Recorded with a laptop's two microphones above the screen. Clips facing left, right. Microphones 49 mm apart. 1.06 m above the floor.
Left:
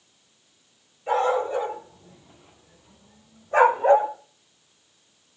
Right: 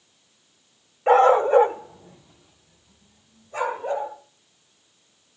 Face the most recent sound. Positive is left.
turn(degrees=80)